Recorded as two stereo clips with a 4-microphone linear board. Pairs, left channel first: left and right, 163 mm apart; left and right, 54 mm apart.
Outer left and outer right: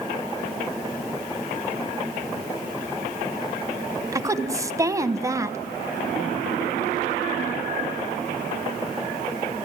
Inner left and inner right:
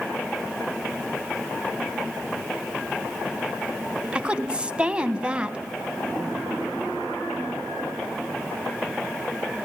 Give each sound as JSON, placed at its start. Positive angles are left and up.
{"t": 4.1, "sound": "a woman speaking", "side_deg": -20, "distance_m": 1.3}